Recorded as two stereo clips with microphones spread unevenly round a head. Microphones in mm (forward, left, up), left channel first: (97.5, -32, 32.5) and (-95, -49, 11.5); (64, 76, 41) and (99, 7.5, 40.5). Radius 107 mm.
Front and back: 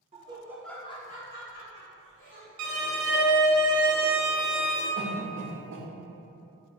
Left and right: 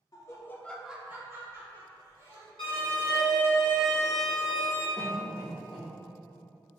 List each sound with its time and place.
0.1 s laughter: 140° left, 0.7 m; by 2.5 s 30° right, 1.5 m
2.6 s a violin: straight behind, 1.1 m
5.0 s a cough: 160° right, 0.9 m